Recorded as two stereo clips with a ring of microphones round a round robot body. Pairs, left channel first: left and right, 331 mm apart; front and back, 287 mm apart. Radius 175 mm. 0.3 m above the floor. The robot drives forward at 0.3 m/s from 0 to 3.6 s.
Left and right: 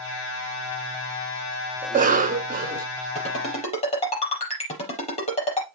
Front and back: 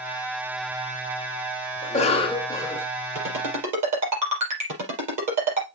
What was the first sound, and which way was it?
A cough, 40° right.